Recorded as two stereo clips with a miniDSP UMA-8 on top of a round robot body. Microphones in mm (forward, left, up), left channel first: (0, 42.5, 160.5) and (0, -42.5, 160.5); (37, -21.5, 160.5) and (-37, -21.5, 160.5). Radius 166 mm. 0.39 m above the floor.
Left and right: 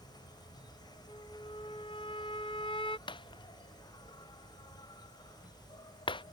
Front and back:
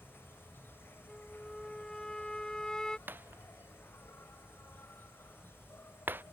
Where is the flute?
80° left.